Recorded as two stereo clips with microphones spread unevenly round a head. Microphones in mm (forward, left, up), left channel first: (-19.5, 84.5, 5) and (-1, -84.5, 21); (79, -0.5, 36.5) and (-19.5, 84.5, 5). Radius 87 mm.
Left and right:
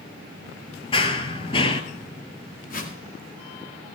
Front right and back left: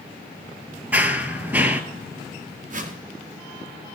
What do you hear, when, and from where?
0.9 s running footsteps: 50° left, 1.1 m
2.7 s a whoosh: 135° left, 2 m